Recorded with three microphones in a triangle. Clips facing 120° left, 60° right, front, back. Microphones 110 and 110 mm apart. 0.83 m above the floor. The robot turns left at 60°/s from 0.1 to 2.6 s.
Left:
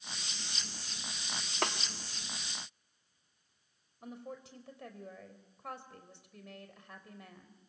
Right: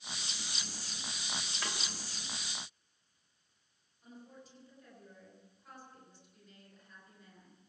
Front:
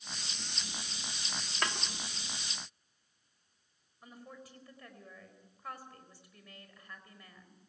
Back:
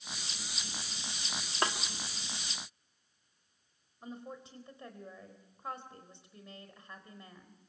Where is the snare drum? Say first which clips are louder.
Left 9 dB, back 3 dB; 120° left, 1.7 m; by 1.8 s 110° left, 1.7 m.